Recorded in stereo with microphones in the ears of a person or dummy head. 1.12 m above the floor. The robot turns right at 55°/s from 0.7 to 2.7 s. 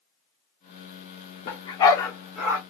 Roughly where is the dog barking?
Left.